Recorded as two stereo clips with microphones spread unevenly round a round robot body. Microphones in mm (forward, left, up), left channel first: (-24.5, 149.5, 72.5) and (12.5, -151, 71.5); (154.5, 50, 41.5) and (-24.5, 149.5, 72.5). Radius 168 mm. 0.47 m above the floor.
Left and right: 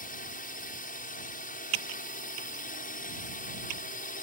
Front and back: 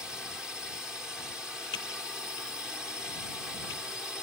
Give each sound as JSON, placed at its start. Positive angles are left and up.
{"t": 0.0, "sound": "a drone", "azimuth_deg": 55}
{"t": 1.7, "sound": "typing on a keyboard", "azimuth_deg": -75}